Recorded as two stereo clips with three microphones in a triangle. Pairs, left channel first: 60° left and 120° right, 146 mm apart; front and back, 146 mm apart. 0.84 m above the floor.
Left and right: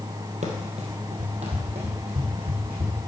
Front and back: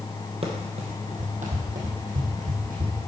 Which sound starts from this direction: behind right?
Running footsteps, at 0.4 s.